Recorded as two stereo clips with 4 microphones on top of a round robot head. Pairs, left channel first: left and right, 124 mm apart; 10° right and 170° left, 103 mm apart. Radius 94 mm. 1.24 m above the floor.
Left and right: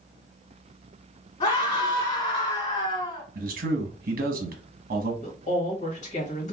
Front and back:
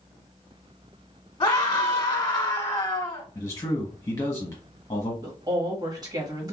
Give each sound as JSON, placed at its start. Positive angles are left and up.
{"t": 1.4, "sound": "a scream", "azimuth_deg": 45, "distance_m": 1.1}
{"t": 3.4, "sound": "a man speaking", "azimuth_deg": -75, "distance_m": 1.0}
{"t": 5.2, "sound": "a woman speaking", "azimuth_deg": 120, "distance_m": 1.5}